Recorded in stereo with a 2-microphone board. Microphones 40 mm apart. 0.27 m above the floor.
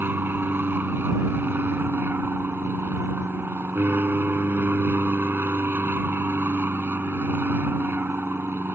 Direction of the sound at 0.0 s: 60° right (ahead or behind).